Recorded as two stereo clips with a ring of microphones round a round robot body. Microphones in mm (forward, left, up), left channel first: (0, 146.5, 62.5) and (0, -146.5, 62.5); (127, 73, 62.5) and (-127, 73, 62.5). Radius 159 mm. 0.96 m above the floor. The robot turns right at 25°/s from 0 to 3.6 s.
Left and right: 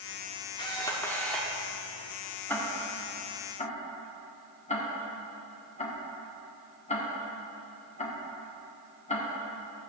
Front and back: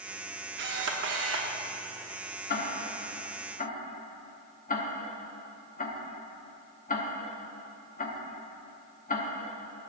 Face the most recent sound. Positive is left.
turn(degrees=35)